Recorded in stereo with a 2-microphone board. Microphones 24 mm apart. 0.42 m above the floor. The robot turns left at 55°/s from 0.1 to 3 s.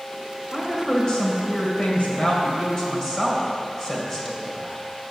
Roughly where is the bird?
No bird in this recording.